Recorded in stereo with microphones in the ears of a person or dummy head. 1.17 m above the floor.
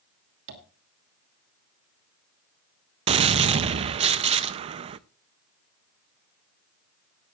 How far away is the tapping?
About 2.5 m.